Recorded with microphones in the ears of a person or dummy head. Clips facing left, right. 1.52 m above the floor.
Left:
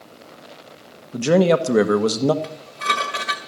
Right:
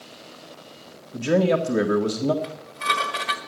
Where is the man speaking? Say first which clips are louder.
Left 4 dB; 65° left (ahead or behind), 1.5 m.